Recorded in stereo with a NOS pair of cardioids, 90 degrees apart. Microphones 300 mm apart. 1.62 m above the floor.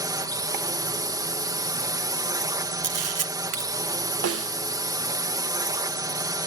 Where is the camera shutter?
55° right.